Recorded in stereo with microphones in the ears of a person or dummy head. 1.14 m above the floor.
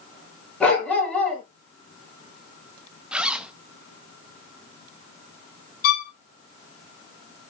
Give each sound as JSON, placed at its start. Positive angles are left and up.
{"t": 0.6, "sound": "a dog barking", "side_deg": 0, "distance_m": 5.5}
{"t": 3.1, "sound": "a zipper", "side_deg": -5, "distance_m": 0.6}
{"t": 5.8, "sound": "a violin", "side_deg": 60, "distance_m": 2.5}